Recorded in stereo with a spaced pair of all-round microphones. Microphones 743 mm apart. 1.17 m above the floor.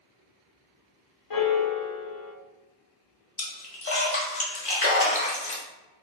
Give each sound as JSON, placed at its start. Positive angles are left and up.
{"t": 1.3, "sound": "a piano", "side_deg": 35, "distance_m": 0.5}
{"t": 3.4, "sound": "a splash", "side_deg": 50, "distance_m": 1.1}